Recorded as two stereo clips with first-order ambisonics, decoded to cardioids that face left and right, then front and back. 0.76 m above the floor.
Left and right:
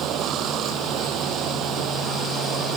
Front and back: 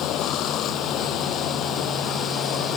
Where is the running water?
45° right.